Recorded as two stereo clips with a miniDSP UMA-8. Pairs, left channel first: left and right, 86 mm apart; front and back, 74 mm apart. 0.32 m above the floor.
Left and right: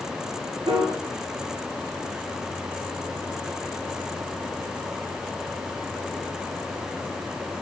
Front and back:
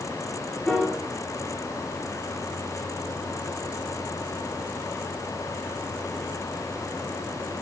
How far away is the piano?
About 3 m.